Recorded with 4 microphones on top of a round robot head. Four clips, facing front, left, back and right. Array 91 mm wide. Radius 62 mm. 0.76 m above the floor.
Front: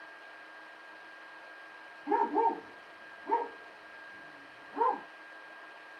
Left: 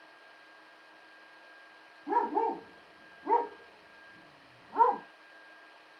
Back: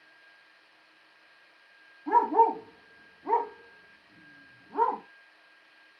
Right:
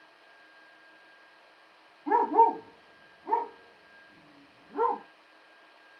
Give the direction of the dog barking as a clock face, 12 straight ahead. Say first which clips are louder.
Right 7 dB, back 6 dB; 4 o'clock.